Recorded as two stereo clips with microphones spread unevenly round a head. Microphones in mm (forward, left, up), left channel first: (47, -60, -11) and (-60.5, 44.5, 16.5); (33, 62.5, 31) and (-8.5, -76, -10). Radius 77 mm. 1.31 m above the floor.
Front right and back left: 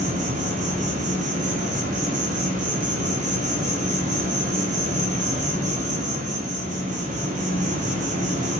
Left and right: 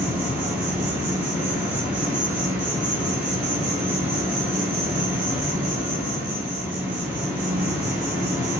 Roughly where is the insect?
Behind.